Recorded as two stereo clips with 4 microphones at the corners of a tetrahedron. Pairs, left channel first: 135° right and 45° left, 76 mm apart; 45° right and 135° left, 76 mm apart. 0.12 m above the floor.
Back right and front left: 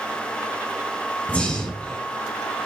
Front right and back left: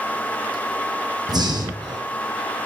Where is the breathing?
150° left, 1.8 m.